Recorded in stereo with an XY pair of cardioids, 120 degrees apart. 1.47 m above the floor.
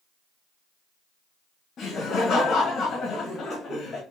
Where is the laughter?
50° left, 1.5 m.